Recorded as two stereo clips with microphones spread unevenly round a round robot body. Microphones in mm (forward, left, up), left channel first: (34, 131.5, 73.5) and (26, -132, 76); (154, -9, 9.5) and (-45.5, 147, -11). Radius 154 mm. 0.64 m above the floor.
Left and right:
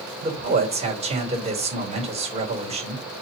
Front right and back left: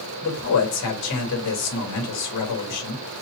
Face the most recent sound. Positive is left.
turn(degrees=-25)